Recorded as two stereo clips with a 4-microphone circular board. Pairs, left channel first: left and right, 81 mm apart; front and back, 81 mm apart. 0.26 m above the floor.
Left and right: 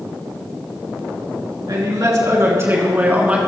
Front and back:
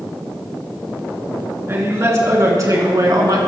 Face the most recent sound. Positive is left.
turn(degrees=-165)